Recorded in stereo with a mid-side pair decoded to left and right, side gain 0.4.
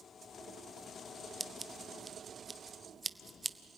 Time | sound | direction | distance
1.4 | scissors | 25° right | 0.8 m